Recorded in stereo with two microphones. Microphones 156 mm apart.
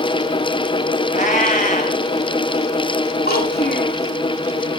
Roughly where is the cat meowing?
Left.